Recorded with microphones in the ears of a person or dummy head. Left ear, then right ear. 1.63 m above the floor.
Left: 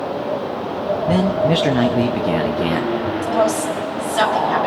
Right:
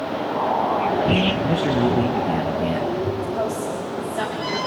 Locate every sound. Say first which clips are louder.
1.1 s a man speaking: left 3 dB; 35° left (ahead or behind), 0.7 m
3.2 s a woman speaking: left 7 dB; 75° left (ahead or behind), 3.5 m